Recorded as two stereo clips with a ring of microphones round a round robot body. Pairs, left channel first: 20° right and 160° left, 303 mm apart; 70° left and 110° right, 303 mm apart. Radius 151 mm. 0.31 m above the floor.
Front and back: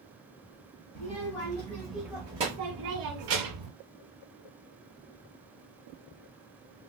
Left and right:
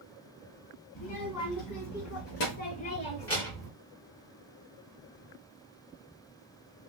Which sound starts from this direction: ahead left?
A child speaking, at 0.9 s.